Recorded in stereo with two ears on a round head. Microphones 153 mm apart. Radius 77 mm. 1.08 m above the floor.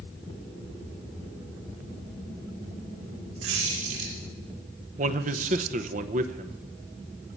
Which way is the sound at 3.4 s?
80° right.